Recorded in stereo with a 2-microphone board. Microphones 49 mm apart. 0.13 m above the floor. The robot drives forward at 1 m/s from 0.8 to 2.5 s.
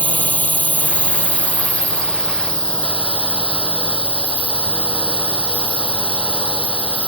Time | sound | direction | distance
0.0 | a drone | 30° left (ahead or behind) | ?